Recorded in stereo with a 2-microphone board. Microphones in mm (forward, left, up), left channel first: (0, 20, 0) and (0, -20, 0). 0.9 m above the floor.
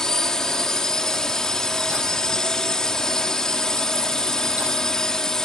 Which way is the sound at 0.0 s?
15° left (ahead or behind).